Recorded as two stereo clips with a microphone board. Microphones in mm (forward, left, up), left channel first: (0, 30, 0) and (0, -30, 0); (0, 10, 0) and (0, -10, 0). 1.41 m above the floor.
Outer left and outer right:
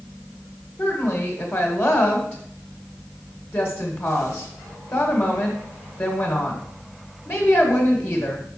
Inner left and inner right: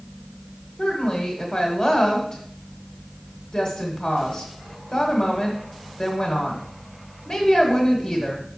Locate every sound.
0.8 s a woman speaking: 40° left (ahead or behind), 1.5 m